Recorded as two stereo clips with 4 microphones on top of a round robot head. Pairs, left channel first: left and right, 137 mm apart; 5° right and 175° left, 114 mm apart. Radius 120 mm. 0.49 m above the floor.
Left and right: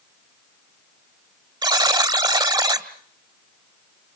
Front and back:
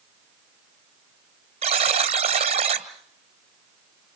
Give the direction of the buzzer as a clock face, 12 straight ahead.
5 o'clock.